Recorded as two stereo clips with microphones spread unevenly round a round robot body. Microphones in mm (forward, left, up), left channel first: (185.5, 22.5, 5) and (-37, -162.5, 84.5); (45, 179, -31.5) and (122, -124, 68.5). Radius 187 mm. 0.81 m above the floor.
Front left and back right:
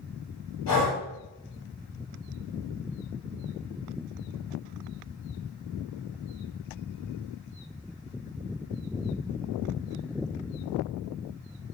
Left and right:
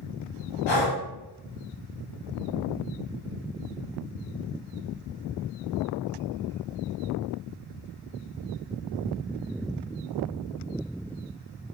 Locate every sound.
0.7 s breathing: 90° left, 1.6 m